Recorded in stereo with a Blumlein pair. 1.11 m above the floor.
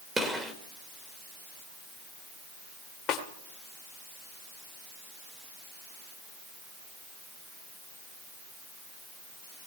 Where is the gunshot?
5° right, 1.8 m.